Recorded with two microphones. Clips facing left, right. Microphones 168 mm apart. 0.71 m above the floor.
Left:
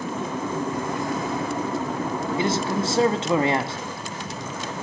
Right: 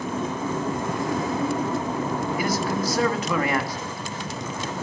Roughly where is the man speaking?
Left.